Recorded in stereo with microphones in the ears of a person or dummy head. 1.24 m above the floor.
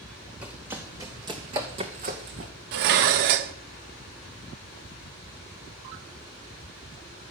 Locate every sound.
0.4 s running footsteps: 10° right (ahead or behind), 3 m; by 2.5 s 55° right (ahead or behind), 3 m
2.7 s dishes clattering: 65° right (ahead or behind), 0.7 m